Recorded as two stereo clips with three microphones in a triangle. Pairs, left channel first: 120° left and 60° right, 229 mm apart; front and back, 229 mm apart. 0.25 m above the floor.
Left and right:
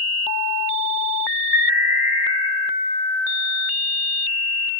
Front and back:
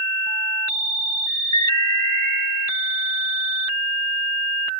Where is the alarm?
135° right, 2.5 m.